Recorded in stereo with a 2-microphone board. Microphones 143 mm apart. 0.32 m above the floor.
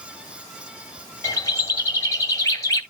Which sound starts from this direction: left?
A bird, at 1.2 s.